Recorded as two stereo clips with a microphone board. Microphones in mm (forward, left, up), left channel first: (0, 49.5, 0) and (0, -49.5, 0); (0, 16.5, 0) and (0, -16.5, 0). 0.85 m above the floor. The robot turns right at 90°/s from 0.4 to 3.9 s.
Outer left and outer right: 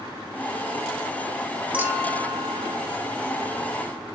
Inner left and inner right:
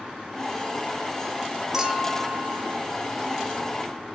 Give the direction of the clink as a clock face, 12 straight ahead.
6 o'clock.